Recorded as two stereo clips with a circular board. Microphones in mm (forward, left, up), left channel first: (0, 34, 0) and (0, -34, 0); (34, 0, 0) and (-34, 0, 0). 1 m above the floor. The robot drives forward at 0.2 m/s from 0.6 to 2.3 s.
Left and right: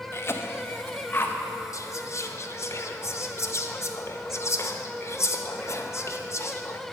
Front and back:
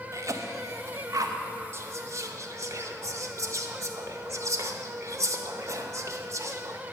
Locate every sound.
0.1 s a cough: 140° left, 0.7 m; by 1.4 s 150° left, 0.8 m
1.7 s whispering: 130° left, 0.6 m; by 6.8 s 135° left, 0.7 m